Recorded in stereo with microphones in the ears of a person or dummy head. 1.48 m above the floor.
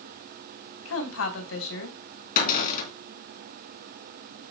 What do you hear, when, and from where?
0.8 s a woman speaking: 85° left, 3.5 m
2.4 s a cupboard door: 50° left (ahead or behind), 4 m